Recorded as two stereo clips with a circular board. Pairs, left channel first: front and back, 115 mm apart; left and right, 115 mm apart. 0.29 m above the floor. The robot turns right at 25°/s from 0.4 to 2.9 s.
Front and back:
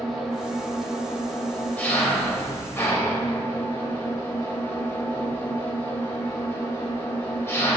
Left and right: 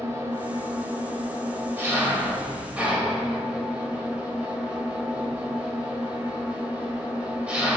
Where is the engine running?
95° right, 0.8 m; by 7.8 s 30° right, 0.8 m.